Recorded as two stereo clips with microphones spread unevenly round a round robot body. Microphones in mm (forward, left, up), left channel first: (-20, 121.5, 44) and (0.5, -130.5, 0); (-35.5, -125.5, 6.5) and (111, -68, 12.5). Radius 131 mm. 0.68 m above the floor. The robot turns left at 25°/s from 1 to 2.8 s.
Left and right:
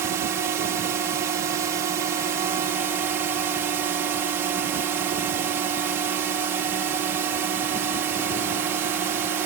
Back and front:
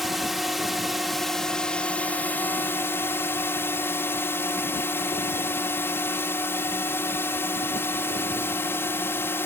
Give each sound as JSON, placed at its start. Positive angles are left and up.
{"t": 0.0, "sound": "a drone", "azimuth_deg": -70}